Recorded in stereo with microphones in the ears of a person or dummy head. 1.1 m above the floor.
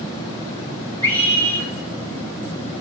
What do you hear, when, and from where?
1.0 s a scream: 25° right (ahead or behind), 5 m